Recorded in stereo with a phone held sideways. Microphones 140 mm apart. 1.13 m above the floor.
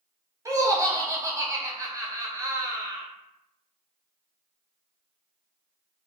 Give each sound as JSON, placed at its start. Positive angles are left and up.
{"t": 0.5, "sound": "laughter", "side_deg": -20, "distance_m": 1.0}